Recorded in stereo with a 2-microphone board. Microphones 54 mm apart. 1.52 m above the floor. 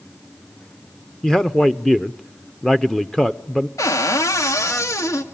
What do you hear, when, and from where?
1.2 s a man speaking: 10° left (ahead or behind), 0.6 m
3.8 s a cupboard door: 70° left (ahead or behind), 1.8 m